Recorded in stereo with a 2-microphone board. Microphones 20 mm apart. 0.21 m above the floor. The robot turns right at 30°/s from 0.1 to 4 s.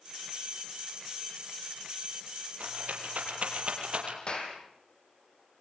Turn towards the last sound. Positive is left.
turn(degrees=40)  # may be behind; listen again after turning